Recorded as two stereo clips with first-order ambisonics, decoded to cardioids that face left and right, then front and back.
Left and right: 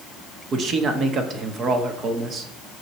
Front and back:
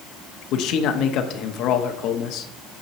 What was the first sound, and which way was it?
A man speaking, 35° right.